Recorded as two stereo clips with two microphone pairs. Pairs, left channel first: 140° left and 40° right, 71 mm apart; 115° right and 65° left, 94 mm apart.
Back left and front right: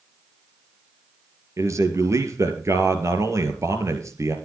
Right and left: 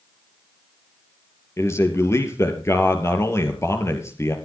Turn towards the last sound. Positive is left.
turn(degrees=-65)